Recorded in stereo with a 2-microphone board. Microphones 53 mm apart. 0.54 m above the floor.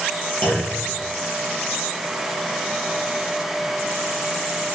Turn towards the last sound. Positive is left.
turn(degrees=35)  # may be behind; listen again after turning